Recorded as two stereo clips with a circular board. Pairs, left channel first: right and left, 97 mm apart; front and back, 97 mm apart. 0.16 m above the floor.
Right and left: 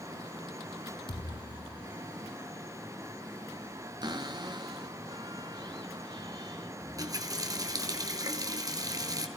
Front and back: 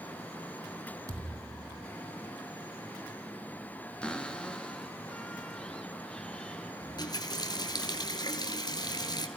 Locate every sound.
1.1 s a thud: 125° right, 2.5 m
4.0 s a cupboard door: 80° left, 1.5 m
6.8 s a running tap: 45° left, 1.8 m